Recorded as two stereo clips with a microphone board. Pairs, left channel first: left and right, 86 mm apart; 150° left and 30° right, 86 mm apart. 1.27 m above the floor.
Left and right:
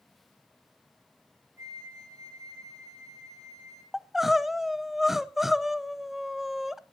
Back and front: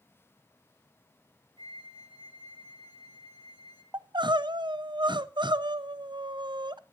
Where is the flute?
30° right, 2.5 m.